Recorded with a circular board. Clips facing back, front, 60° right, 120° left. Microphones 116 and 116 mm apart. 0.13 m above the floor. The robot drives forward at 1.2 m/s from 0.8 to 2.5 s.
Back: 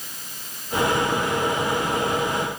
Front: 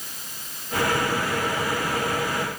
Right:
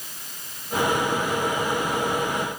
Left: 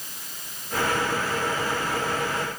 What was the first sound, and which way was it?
Only background noise.